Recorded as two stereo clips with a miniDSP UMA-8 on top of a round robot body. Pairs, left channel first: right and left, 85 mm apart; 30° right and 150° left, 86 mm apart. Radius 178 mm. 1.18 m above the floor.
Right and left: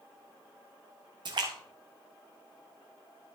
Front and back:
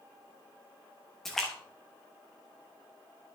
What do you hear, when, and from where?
1.2 s a splash: 55° left, 0.9 m